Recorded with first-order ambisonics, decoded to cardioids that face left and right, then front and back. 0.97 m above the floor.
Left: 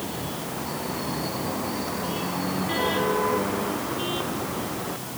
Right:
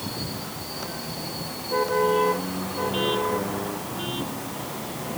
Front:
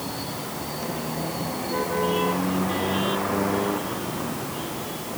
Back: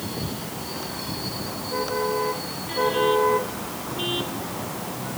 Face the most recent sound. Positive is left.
No sound to turn to.